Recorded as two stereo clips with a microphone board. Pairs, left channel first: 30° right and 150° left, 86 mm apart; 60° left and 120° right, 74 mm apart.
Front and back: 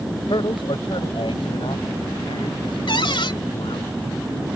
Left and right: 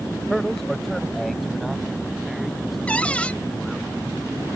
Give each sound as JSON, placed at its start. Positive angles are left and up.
{"t": 0.3, "sound": "a man speaking", "azimuth_deg": -25}
{"t": 2.9, "sound": "a cupboard door", "azimuth_deg": -10}